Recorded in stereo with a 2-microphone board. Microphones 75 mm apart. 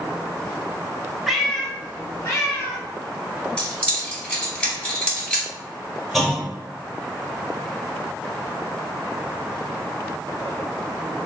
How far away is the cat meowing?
About 0.7 m.